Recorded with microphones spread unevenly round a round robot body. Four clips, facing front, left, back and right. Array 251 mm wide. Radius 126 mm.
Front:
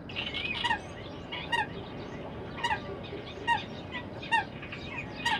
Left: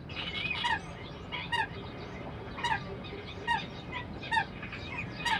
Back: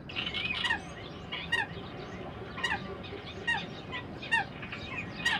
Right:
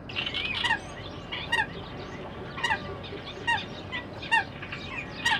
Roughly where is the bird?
Ahead right.